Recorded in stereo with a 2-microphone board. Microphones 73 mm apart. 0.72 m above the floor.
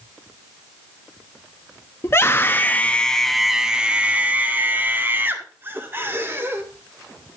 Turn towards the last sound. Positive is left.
turn(degrees=-30)  # may be behind; listen again after turning